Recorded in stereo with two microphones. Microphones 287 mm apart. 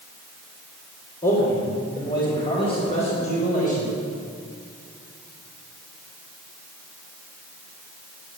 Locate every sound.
1.2 s a man speaking: 30° left (ahead or behind), 5 m